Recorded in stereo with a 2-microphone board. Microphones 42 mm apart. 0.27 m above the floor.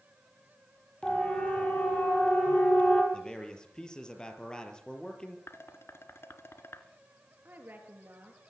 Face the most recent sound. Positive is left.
turn(degrees=-50)  # may be behind; listen again after turning